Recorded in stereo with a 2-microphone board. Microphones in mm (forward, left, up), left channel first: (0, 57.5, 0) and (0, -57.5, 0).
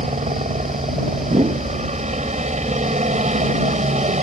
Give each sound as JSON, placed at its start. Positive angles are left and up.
{"t": 0.0, "sound": "a helicopter", "side_deg": -75}
{"t": 1.2, "sound": "a whoosh", "side_deg": -65}